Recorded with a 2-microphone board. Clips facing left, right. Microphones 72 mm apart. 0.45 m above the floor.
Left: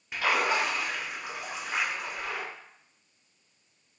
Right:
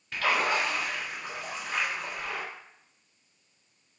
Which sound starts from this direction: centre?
A splash, at 0.1 s.